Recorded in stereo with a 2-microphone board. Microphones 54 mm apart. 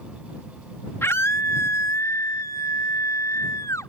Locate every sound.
1.0 s a scream: 50° left (ahead or behind); by 3.9 s 85° left